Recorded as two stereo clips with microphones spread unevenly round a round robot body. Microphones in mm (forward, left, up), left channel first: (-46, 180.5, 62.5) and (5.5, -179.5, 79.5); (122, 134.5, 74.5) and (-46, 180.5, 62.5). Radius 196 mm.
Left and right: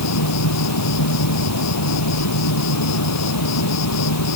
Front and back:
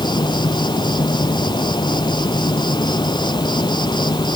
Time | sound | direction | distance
0.0 | an insect | 50° left | ?